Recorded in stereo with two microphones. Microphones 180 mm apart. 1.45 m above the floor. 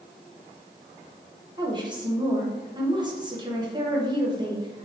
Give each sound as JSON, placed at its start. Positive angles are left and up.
{"t": 1.6, "sound": "a woman speaking", "side_deg": -25, "distance_m": 0.9}